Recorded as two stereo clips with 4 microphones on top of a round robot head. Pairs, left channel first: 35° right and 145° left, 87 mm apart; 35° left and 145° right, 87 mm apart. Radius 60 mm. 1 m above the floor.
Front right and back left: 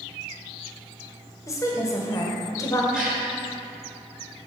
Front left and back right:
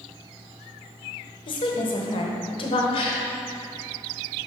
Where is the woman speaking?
20° left, 1.0 m.